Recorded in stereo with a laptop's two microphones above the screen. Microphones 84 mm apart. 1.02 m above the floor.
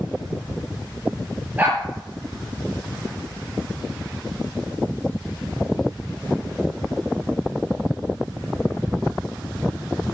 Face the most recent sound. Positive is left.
turn(degrees=-20)  # may be behind; listen again after turning